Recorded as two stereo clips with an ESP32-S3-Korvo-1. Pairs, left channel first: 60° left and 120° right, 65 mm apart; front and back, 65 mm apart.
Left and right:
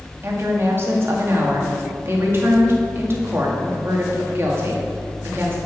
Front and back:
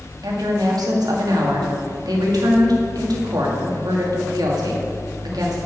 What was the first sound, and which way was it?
A woman speaking, 170° right.